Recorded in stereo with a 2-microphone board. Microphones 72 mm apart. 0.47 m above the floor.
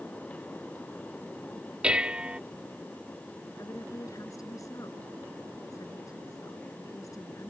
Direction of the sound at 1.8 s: 15° right (ahead or behind).